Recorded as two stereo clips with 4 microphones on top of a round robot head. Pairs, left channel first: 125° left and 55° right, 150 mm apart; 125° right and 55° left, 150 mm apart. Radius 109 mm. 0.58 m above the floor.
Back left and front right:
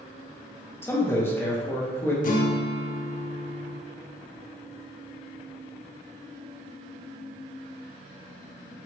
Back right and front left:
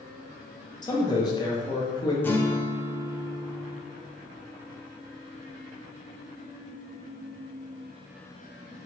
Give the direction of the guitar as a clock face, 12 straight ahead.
7 o'clock.